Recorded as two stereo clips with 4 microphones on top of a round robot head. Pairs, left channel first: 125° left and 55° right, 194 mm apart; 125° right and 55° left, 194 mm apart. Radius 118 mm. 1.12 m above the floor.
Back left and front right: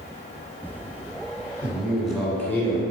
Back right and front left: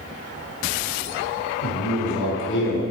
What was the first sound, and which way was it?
A man speaking, 135° right.